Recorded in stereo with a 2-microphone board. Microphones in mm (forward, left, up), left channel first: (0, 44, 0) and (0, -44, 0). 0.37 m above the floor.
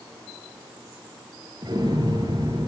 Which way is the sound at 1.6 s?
50° right (ahead or behind).